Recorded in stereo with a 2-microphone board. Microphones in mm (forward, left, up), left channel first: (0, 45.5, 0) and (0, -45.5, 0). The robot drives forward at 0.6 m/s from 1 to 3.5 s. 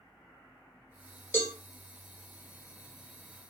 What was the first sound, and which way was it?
A cowbell, 25° left (ahead or behind).